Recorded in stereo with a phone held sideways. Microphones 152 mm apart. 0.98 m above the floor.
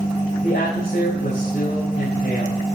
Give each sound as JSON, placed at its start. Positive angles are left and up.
{"t": 0.4, "sound": "a man speaking", "side_deg": 85, "distance_m": 5.5}